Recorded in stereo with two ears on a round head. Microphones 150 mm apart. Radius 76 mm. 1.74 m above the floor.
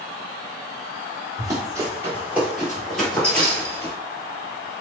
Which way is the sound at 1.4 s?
25° right (ahead or behind).